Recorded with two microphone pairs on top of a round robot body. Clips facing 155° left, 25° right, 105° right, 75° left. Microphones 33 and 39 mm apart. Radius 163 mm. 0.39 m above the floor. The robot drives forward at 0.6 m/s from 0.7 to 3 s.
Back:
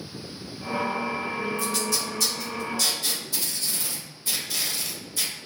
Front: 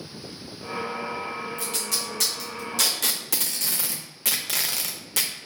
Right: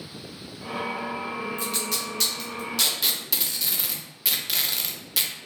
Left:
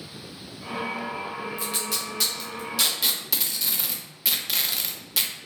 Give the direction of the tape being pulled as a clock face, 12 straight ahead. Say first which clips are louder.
Back 3 dB, right 1 dB; 12 o'clock.